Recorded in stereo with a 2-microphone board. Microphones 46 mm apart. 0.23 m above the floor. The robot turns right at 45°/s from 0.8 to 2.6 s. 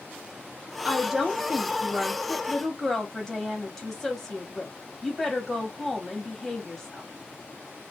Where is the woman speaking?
15° right (ahead or behind), 1.3 m; by 7.0 s 10° left (ahead or behind), 1.3 m.